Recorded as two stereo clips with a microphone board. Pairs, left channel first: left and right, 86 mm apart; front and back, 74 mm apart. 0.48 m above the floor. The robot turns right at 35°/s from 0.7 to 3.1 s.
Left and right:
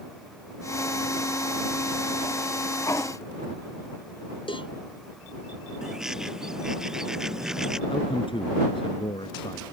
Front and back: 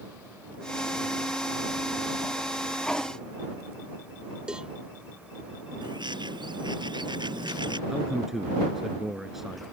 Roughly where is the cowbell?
Left.